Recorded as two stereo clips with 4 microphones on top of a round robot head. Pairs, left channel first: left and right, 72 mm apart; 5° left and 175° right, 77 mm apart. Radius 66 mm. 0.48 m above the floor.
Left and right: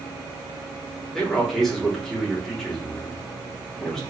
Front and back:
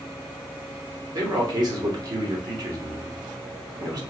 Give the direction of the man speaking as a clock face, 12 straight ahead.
6 o'clock.